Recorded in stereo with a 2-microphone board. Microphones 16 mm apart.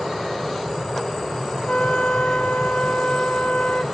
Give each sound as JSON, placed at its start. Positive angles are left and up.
{"t": 1.7, "sound": "a flute", "side_deg": 75, "distance_m": 0.7}